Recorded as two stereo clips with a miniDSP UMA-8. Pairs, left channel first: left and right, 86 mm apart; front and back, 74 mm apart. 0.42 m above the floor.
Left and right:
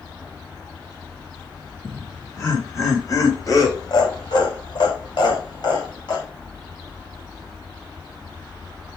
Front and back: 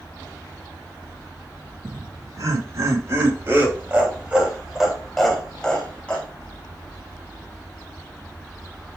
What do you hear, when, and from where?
1.8 s laughter: 150° left, 3.5 m; by 6.2 s 70° left, 3 m